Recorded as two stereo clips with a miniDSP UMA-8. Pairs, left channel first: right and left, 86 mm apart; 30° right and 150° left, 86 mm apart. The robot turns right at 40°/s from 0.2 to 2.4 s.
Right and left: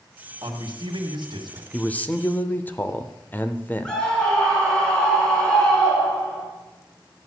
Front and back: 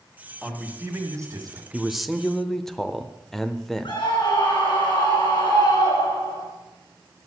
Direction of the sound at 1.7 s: 135° right.